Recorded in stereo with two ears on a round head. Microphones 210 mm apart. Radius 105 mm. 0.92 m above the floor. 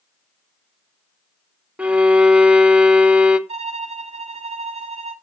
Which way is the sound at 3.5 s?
30° right (ahead or behind).